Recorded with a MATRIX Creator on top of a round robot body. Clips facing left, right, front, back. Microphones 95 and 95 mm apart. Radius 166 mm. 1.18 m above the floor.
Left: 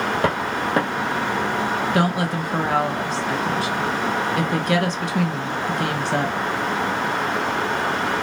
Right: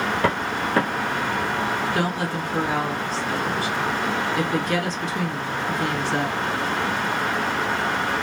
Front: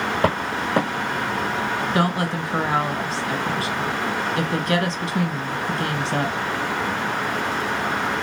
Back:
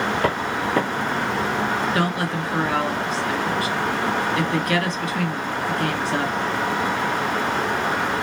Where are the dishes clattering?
No dishes clattering in this recording.